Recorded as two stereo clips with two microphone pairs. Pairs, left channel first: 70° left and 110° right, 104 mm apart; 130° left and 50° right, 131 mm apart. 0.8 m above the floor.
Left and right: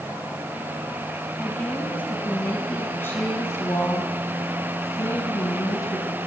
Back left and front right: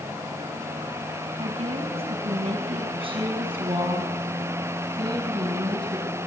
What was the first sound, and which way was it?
A woman speaking, 5° right.